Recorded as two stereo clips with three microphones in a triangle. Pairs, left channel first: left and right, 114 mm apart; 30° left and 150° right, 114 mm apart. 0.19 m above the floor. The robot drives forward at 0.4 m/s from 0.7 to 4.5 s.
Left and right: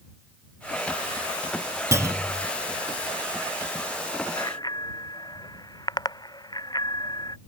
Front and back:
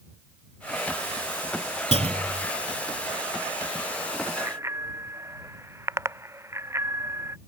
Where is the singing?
No singing in this recording.